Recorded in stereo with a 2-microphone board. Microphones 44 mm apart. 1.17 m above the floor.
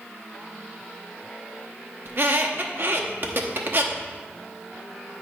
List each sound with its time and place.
2.0 s a squeak: 50° right (ahead or behind), 0.8 m